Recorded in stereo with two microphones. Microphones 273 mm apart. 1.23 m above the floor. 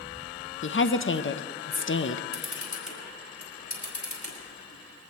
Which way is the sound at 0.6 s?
45° left (ahead or behind).